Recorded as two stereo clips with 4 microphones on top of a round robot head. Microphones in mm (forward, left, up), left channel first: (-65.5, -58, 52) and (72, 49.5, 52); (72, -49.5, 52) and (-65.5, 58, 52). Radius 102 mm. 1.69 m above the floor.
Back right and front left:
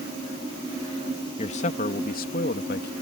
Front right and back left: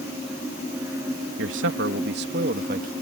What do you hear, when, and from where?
1.4 s a man speaking: 160° left; by 2.9 s 175° right